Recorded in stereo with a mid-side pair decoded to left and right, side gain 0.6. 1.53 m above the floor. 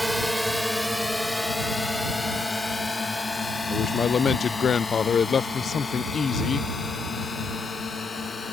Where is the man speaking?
35° left.